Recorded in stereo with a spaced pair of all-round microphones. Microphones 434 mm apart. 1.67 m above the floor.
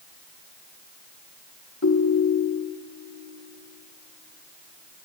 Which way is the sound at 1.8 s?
40° left (ahead or behind).